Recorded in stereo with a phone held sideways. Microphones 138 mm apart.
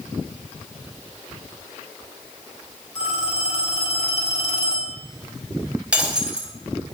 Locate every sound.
3.0 s a phone ringing: 5° right (ahead or behind), 5 m
5.9 s breaking glass: 10° right (ahead or behind), 3.5 m